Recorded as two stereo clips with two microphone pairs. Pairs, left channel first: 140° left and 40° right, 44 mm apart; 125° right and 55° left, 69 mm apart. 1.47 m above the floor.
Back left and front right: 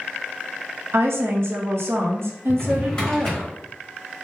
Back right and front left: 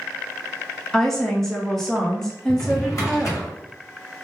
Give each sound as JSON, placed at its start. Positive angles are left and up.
{"t": 0.9, "sound": "a woman speaking", "azimuth_deg": -45, "distance_m": 0.9}
{"t": 2.5, "sound": "a drawer", "azimuth_deg": -155, "distance_m": 1.4}